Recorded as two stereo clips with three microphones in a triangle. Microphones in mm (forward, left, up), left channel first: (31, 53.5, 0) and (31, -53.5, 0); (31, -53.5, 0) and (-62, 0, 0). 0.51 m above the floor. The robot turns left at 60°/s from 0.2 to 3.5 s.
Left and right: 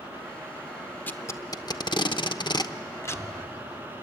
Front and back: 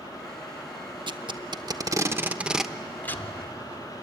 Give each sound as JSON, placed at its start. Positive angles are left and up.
{"t": 1.1, "sound": "tape being pulled", "azimuth_deg": 155, "distance_m": 0.9}
{"t": 3.0, "sound": "breathing", "azimuth_deg": -20, "distance_m": 3.0}